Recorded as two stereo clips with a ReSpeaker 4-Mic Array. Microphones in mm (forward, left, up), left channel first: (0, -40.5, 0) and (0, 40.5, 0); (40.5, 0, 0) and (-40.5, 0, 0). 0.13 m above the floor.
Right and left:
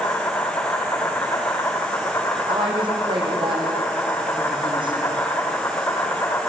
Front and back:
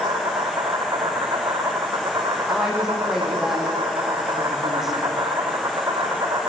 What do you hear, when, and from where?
0.0 s an insect: 145° right, 3.5 m
2.5 s a woman speaking: 95° left, 6.5 m